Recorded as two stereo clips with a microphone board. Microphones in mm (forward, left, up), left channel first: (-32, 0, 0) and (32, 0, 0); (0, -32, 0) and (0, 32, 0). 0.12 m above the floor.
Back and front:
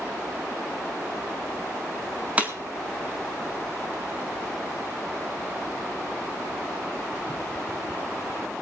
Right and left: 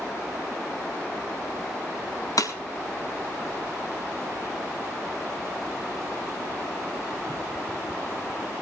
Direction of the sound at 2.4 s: 70° right.